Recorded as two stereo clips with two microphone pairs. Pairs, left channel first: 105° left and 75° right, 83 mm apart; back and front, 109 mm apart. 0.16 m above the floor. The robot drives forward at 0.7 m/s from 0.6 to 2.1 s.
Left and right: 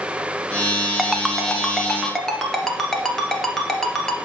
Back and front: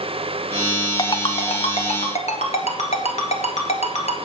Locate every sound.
1.0 s a ringtone: 165° right, 0.6 m; by 4.2 s 175° right, 1.2 m